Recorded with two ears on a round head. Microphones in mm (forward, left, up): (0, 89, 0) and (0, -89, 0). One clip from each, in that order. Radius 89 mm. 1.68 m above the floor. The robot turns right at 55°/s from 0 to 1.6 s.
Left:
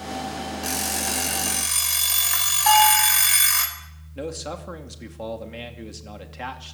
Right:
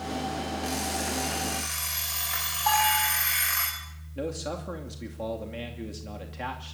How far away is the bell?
About 7 m.